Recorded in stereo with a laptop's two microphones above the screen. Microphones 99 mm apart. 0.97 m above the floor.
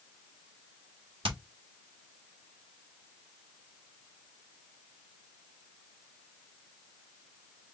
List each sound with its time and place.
1.2 s hammering: 70° right (ahead or behind), 1.7 m